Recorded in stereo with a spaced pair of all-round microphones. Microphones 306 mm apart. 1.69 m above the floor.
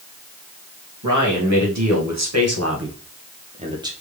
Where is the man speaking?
70° right (ahead or behind), 2 m; by 3.9 s 10° right (ahead or behind), 0.9 m.